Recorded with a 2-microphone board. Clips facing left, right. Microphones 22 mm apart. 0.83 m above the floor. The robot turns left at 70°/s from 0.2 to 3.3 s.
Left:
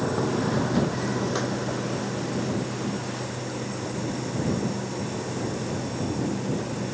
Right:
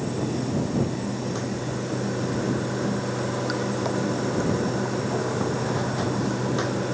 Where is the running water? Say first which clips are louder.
Left 2 dB; 115° left; by 7.0 s 105° right.